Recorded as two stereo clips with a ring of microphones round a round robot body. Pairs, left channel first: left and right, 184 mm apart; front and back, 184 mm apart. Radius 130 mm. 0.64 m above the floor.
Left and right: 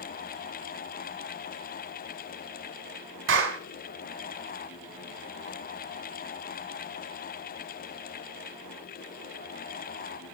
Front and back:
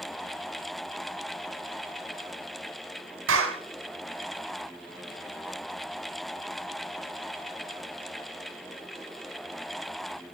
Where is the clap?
135° right, 4 m.